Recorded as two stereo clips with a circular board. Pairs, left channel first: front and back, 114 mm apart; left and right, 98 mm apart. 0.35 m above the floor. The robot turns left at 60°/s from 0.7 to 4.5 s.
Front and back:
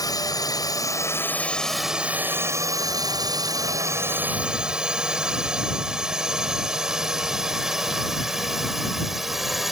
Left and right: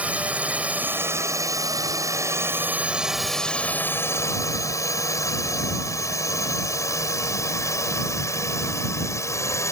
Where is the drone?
25° right; by 9.7 s 95° left.